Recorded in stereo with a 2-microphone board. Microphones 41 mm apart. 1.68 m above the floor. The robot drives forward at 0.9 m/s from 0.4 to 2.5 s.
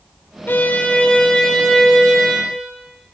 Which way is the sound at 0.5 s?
55° left (ahead or behind).